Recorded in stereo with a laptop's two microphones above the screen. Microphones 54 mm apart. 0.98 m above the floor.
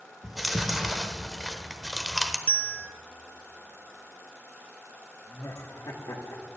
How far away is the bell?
About 0.5 m.